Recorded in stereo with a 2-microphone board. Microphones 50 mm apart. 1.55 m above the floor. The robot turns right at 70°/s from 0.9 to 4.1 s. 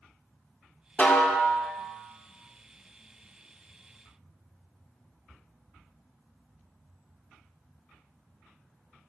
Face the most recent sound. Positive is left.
turn(degrees=-50)